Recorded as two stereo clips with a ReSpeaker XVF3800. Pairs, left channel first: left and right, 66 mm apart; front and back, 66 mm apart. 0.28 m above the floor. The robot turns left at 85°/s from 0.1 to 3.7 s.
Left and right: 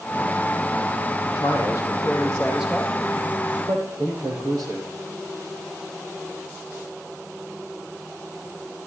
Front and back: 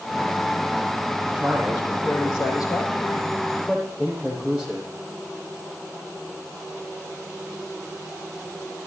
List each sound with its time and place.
1.2 s a man speaking: 110° left, 8.5 m; by 4.9 s 95° right, 8.5 m